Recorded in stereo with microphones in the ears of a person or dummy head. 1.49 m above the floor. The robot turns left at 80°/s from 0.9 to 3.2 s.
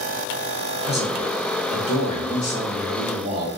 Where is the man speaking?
155° left, 0.9 m; by 3.5 s 30° right, 0.9 m.